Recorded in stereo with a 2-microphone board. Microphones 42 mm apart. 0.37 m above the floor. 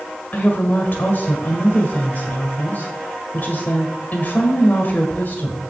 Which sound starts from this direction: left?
A woman speaking, at 0.3 s.